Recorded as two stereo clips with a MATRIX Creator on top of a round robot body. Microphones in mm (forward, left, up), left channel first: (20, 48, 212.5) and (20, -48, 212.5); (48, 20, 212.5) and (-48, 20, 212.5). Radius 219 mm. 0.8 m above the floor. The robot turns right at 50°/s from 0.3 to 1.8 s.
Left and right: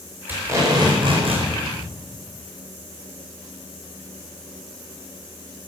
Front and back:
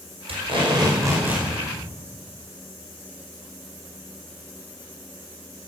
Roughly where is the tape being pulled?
Behind.